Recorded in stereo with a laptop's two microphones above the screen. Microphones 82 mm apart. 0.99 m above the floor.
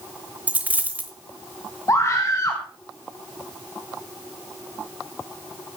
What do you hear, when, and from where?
0.5 s a dropped coin: 20° right (ahead or behind), 0.9 m
1.9 s a scream: 35° left (ahead or behind), 1.3 m